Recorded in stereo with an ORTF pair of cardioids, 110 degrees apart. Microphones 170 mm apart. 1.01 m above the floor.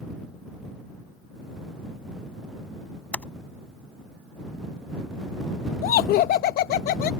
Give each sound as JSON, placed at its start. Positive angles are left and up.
{"t": 3.1, "sound": "typing on a keyboard", "azimuth_deg": 5}
{"t": 5.8, "sound": "laughter", "azimuth_deg": 65}